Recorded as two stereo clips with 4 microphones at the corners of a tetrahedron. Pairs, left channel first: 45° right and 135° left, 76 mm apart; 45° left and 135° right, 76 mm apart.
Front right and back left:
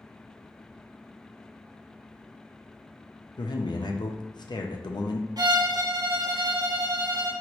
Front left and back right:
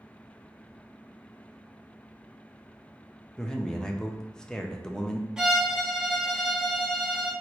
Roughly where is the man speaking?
Ahead right.